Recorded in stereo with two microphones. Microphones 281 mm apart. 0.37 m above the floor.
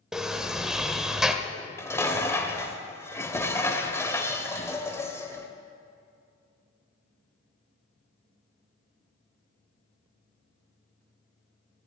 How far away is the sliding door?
About 0.7 m.